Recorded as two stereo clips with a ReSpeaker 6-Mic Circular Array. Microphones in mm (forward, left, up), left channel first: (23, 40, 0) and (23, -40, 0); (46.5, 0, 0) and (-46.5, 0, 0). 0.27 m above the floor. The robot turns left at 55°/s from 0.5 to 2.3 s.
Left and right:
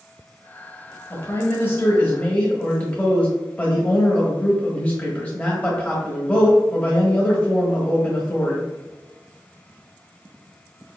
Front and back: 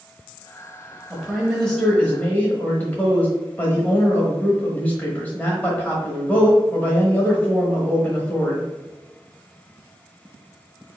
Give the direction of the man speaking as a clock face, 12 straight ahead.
8 o'clock.